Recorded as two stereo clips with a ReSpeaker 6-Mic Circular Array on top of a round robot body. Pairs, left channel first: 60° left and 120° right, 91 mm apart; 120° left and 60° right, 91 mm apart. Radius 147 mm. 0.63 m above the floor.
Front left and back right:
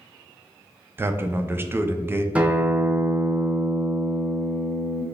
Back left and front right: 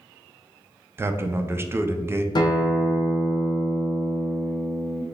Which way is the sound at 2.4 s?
165° left.